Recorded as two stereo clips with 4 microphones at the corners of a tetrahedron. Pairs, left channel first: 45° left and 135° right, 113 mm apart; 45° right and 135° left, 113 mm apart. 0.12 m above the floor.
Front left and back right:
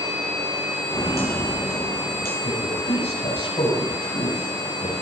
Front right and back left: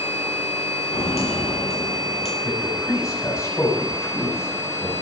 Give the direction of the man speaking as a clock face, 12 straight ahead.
11 o'clock.